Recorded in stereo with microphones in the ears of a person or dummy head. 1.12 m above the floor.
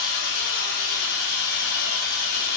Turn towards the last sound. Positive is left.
turn(degrees=55)  # may be behind; listen again after turning